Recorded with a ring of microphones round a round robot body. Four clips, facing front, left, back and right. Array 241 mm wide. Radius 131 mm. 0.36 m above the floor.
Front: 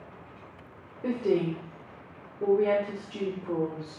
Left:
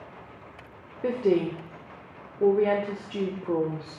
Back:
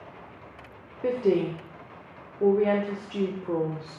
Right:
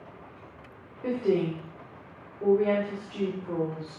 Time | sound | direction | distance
1.0 | a woman speaking | 120° left | 1.1 m